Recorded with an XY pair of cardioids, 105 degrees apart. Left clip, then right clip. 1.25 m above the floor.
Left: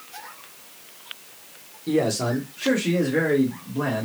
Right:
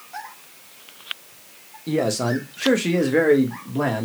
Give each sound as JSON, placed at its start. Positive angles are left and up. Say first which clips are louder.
{"t": 1.9, "sound": "a man speaking", "louder": "right 1 dB", "azimuth_deg": -15, "distance_m": 1.0}